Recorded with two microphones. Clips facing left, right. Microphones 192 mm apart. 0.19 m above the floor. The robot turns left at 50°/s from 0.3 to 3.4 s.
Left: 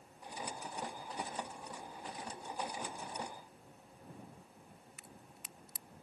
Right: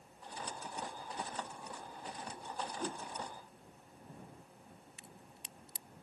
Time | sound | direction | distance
2.8 | a whoosh | 45° right (ahead or behind) | ?
5.0 | a crack | 30° right (ahead or behind) | ?